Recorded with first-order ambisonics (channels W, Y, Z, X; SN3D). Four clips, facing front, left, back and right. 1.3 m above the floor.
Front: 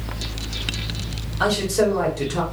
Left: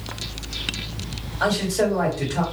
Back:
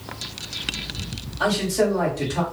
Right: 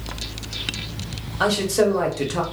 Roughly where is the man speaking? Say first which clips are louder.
Right 2 dB, front 1 dB; ahead right.